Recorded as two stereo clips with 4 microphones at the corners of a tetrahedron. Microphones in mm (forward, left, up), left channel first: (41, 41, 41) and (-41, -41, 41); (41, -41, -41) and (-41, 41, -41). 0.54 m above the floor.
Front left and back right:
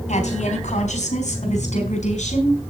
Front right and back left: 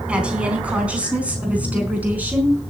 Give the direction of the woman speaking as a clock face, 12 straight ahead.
10 o'clock.